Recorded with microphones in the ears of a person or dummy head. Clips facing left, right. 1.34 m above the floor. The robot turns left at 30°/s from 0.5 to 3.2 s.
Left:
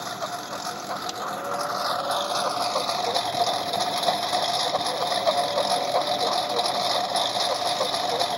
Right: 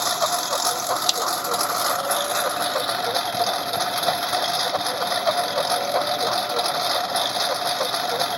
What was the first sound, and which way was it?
A lawn mower, 95° right.